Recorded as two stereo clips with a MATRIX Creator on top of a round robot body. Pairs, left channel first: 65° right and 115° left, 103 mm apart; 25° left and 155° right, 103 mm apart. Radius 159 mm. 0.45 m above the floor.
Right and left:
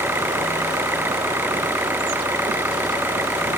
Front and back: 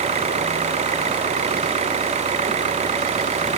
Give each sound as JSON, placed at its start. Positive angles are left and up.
{"t": 0.0, "sound": "an engine running", "azimuth_deg": -175}